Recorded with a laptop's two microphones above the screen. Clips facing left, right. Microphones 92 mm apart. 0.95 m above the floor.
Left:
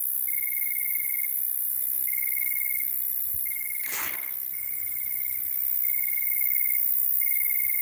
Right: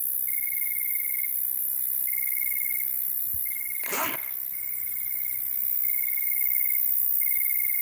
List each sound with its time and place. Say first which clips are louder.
0.0 s an insect: left 1 dB; 10° right (ahead or behind), 2.5 m
3.8 s a zipper: right 8 dB; 75° right (ahead or behind), 0.9 m